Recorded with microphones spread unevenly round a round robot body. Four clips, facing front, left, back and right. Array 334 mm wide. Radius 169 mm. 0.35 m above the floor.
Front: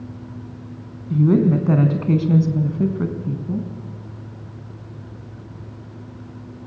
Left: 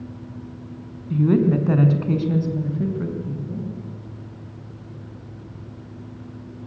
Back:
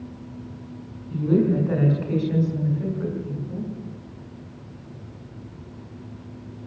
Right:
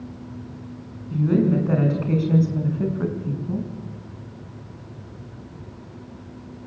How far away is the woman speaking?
About 4 m.